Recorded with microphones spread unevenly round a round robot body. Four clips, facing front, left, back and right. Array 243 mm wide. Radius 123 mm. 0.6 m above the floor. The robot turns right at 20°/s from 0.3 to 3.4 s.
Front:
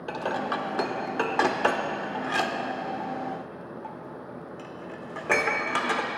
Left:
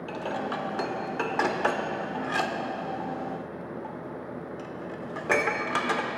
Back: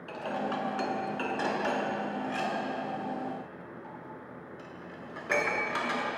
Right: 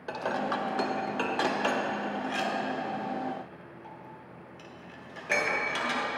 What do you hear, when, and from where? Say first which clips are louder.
0.1 s dishes clattering: right 2 dB, front 4 dB; 10° right, 0.9 m; by 6.1 s 50° left, 0.9 m